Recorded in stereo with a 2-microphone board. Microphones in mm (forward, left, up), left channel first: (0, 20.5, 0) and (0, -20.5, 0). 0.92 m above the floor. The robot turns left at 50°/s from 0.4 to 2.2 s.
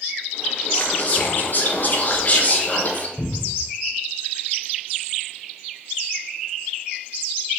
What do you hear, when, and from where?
0.7 s whispering: 130° left, 0.8 m; by 3.1 s 60° left, 0.8 m
3.2 s a cupboard door: 15° right (ahead or behind), 1.1 m